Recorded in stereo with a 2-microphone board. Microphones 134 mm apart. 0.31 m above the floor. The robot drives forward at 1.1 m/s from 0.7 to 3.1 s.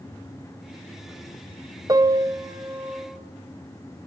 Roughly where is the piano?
Right.